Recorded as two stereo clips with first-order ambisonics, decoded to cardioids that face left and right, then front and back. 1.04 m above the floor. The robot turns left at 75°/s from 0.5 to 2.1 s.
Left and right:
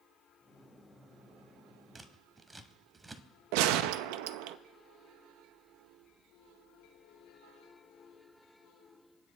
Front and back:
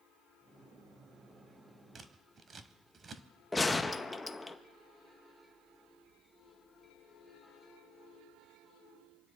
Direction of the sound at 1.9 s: 145° right.